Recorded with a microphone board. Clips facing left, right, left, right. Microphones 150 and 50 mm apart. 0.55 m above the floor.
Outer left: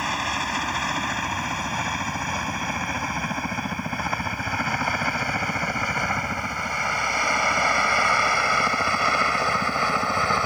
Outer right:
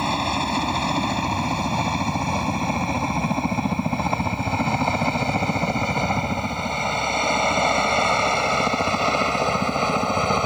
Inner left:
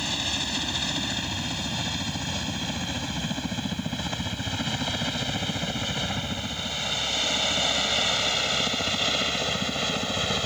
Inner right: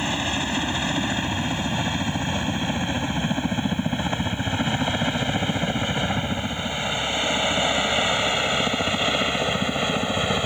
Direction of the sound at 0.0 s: 30° right (ahead or behind).